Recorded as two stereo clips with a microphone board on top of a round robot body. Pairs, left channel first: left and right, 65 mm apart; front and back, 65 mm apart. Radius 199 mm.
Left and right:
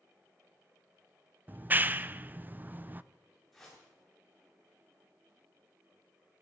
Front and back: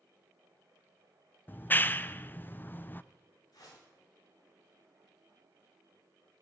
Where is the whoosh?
Straight ahead, 7.5 m.